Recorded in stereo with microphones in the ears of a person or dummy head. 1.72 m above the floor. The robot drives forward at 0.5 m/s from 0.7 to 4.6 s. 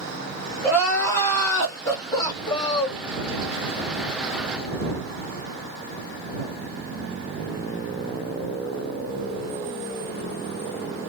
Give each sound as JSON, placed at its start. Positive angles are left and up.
{"t": 0.6, "sound": "crying", "side_deg": 15, "distance_m": 2.0}